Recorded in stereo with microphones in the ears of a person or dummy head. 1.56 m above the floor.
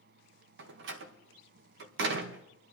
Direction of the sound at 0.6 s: 65° right (ahead or behind).